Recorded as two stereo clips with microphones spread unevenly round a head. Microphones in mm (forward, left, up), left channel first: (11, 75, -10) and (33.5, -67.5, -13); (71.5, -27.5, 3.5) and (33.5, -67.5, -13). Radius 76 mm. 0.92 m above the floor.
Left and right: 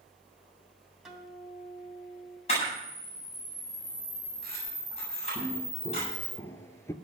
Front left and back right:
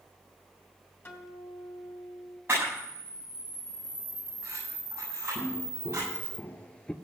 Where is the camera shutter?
150° left, 8 m.